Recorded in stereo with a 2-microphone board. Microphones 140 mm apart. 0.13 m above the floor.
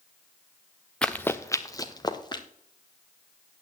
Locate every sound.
1.0 s running footsteps: 10° left (ahead or behind), 0.7 m; by 2.4 s 35° left (ahead or behind), 1.7 m